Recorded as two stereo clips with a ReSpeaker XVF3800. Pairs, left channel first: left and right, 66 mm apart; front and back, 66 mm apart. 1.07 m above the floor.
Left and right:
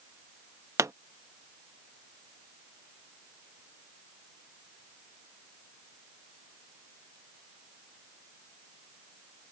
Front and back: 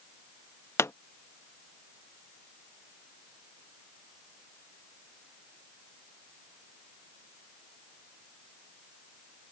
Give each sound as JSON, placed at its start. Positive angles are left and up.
{"t": 0.8, "sound": "a pop", "azimuth_deg": -50}